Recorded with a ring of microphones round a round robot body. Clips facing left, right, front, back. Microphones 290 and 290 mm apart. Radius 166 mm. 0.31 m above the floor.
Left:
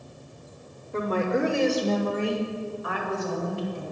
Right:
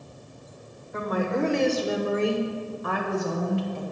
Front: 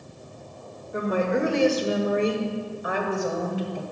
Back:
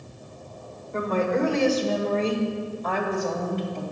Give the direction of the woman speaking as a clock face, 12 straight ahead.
10 o'clock.